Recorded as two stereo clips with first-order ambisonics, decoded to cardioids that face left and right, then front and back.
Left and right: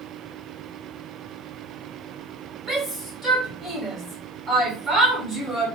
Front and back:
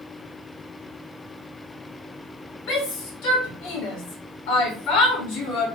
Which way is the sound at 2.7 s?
5° right.